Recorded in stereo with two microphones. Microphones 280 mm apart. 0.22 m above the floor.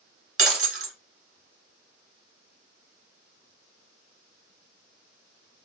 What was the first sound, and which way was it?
Breaking glass, 50° right (ahead or behind).